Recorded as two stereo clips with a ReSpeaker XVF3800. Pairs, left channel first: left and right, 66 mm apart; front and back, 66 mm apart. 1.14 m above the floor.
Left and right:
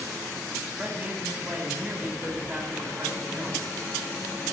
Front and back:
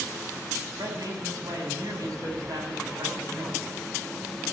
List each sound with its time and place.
0.8 s a man speaking: 165° right, 5 m